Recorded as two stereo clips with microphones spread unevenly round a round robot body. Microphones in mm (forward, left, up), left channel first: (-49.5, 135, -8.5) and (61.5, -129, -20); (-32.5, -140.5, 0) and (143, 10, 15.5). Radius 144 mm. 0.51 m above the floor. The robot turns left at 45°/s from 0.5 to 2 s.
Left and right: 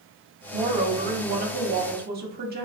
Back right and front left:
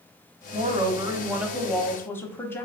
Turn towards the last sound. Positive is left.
turn(degrees=-70)